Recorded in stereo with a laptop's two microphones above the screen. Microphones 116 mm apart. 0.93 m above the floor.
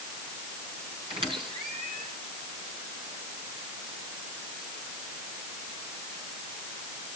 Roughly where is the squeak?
Right.